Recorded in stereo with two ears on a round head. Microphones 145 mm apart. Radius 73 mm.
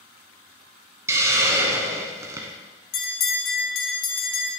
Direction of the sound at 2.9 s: 65° left (ahead or behind).